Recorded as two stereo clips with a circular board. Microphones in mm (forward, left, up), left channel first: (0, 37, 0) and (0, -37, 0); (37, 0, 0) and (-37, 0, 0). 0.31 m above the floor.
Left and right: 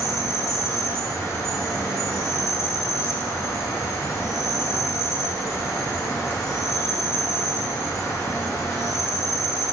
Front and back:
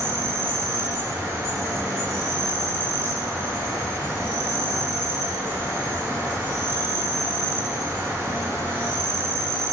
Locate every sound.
0.0 s an insect: 135° left, 0.8 m